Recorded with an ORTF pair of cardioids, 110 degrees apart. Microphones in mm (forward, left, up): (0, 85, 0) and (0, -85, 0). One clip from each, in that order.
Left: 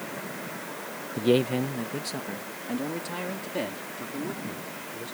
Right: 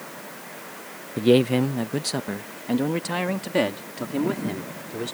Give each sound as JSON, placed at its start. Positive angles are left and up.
{"t": 1.2, "sound": "a man speaking", "azimuth_deg": -20}